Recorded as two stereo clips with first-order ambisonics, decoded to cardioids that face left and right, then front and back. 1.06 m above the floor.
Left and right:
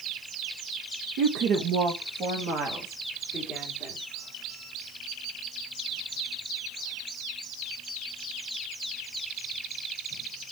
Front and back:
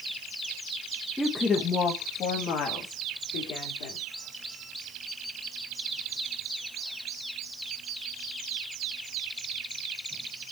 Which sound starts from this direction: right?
A woman speaking, at 1.2 s.